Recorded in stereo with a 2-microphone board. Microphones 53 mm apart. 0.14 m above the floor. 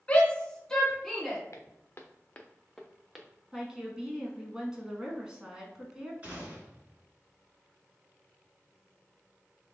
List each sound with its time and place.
0.1 s a shout: 25° left (ahead or behind), 1.3 m; by 1.4 s centre (ahead or behind), 1.4 m
1.5 s footsteps: 60° left (ahead or behind), 0.9 m; by 3.3 s 10° right (ahead or behind), 1.1 m
3.5 s a woman speaking: 15° right (ahead or behind), 1.1 m
6.2 s a gunshot: 30° right (ahead or behind), 2 m